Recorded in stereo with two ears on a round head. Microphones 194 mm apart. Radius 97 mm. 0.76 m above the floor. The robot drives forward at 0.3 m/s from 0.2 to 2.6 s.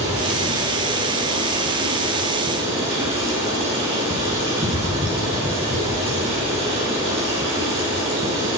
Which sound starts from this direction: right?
Running water, at 0.0 s.